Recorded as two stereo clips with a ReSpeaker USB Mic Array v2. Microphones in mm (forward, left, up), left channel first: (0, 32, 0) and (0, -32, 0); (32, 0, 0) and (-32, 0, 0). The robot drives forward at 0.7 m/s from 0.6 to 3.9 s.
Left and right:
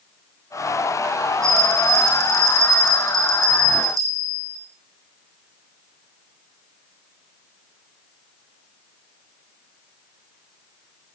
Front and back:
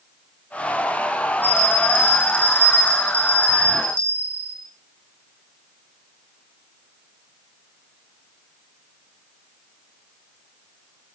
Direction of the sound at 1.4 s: 60° right.